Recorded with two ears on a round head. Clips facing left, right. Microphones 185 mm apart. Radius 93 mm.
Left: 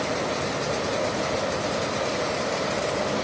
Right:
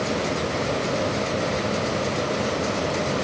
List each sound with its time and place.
Only background noise.